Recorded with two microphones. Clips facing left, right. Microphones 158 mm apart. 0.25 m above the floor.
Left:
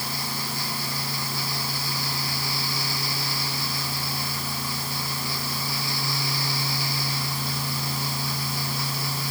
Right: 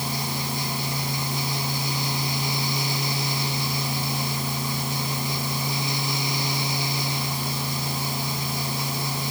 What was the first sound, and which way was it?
Only background noise.